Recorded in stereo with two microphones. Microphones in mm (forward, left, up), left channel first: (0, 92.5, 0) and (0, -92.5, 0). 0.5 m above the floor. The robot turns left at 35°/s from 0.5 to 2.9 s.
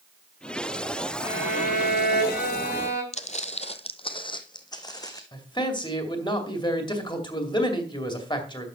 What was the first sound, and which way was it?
A violin, 145° left.